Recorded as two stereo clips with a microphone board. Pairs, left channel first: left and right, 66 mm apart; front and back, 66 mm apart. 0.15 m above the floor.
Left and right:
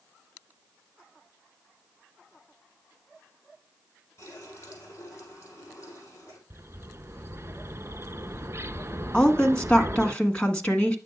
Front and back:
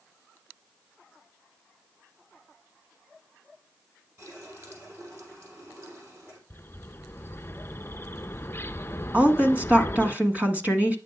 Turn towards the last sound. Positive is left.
turn(degrees=145)